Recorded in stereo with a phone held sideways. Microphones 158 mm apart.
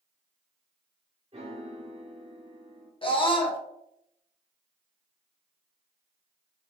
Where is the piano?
40° right (ahead or behind), 0.9 m.